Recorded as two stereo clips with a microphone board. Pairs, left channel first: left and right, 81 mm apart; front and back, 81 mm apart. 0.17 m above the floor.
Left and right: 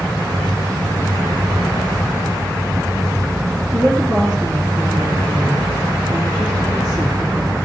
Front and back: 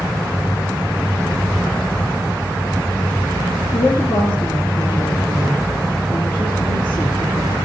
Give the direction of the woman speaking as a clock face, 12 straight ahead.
12 o'clock.